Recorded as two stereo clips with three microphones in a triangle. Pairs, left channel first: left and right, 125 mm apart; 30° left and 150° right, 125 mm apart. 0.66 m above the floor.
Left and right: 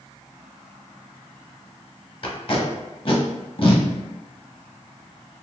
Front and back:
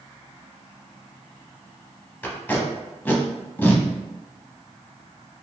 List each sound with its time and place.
2.2 s tape being pulled: 100° left, 0.6 m